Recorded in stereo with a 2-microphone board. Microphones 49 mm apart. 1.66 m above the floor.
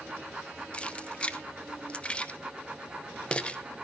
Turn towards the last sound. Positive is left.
turn(degrees=25)  # may be behind; listen again after turning